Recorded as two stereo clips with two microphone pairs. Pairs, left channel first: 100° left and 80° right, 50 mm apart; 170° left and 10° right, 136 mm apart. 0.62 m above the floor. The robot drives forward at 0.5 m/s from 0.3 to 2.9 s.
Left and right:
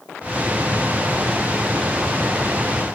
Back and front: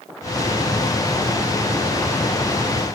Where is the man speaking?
No man speaking in this recording.